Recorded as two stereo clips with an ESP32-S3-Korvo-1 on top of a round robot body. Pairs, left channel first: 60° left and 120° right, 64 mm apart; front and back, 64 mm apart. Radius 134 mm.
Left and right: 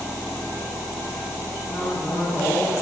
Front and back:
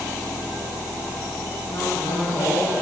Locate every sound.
1.7 s a man speaking: 35° left, 8 m; by 2.7 s 40° left, 8 m